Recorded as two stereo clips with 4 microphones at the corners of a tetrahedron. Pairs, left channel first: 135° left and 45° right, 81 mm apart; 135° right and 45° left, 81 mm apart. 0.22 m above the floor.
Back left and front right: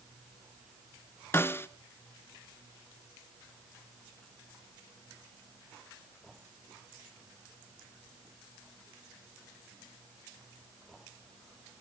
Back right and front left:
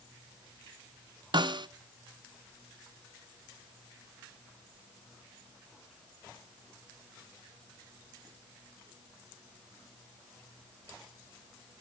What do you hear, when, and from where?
1.3 s a snare drum: 75° left, 0.6 m